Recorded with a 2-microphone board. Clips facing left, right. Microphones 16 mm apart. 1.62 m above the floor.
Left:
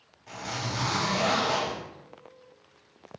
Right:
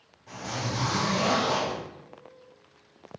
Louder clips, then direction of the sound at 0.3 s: Right 1 dB; 20° left (ahead or behind).